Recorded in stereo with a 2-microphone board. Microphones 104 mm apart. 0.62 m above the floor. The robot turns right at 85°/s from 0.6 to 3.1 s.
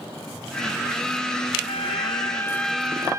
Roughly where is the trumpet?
Left.